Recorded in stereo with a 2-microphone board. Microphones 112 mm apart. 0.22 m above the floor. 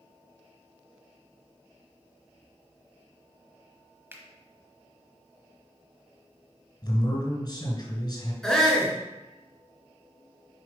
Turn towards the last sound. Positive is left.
turn(degrees=5)  # may be behind; listen again after turning